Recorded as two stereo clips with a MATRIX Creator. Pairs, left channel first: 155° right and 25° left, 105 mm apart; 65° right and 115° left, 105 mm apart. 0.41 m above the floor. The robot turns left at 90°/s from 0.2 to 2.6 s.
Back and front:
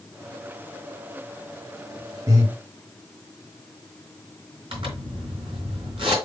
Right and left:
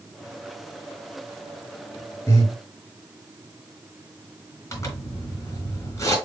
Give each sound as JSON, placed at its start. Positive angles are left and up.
{"t": 2.3, "sound": "breathing", "azimuth_deg": -10, "distance_m": 1.8}
{"t": 4.7, "sound": "a zipper", "azimuth_deg": -5, "distance_m": 3.0}